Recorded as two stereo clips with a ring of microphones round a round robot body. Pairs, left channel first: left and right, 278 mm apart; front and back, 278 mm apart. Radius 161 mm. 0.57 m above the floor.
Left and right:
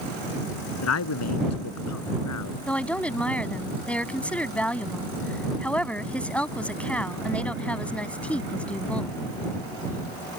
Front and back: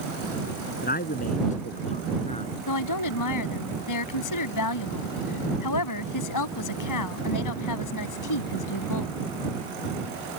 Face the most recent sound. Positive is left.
turn(degrees=5)